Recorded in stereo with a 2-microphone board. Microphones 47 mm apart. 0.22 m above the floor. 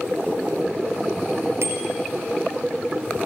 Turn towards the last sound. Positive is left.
turn(degrees=-65)  # may be behind; listen again after turning